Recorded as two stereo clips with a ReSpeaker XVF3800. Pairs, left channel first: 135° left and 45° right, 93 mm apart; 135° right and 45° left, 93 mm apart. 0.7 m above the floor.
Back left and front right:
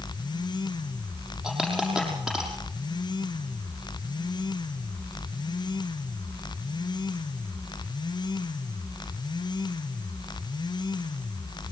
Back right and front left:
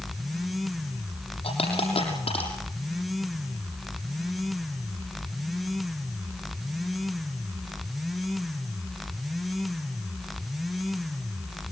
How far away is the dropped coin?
About 6.5 m.